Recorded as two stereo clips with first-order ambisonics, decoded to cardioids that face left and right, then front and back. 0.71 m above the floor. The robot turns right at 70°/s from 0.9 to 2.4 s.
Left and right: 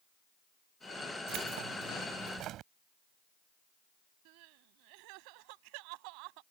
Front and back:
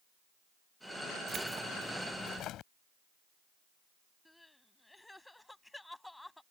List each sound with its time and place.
1.3 s keys jangling: 125° right; by 2.7 s 45° right
4.2 s crying: 85° right